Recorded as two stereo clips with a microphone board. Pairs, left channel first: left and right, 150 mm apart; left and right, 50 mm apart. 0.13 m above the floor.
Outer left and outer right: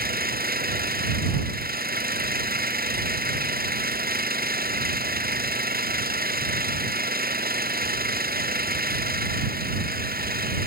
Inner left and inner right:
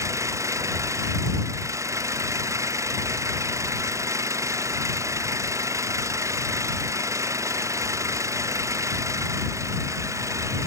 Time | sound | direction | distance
0.0 | an engine running | 85° right | ?